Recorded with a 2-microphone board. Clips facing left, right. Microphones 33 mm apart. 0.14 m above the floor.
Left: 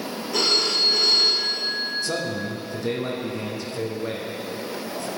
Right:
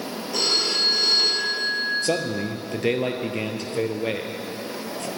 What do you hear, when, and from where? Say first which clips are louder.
0.3 s a phone ringing: left 1 dB; centre (ahead or behind), 5.5 m
2.0 s a man speaking: right 2 dB; 65° right (ahead or behind), 2.5 m